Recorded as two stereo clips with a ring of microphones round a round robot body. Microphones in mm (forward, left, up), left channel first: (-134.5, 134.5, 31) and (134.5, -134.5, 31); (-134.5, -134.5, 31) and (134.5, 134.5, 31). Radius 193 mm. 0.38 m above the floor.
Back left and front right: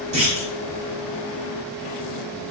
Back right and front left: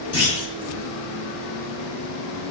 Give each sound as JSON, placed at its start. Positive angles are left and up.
{"t": 0.1, "sound": "a clunk", "azimuth_deg": -110, "distance_m": 1.3}